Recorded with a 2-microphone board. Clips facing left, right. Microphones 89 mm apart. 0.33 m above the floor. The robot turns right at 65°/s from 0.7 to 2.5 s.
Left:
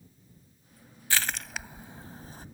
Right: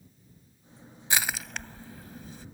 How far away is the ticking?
I don't hear ticking.